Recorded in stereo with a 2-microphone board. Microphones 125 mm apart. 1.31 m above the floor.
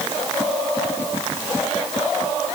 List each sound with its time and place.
Only background noise.